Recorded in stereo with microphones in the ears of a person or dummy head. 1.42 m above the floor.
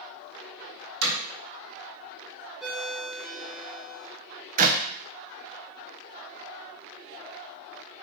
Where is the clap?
40° right (ahead or behind), 0.8 m.